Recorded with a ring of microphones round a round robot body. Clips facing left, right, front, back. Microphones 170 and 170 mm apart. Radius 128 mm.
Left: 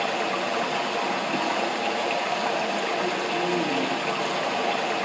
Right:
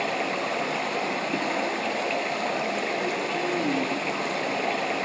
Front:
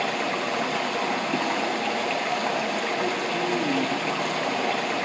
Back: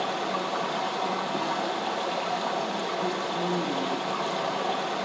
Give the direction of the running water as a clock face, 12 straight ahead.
12 o'clock.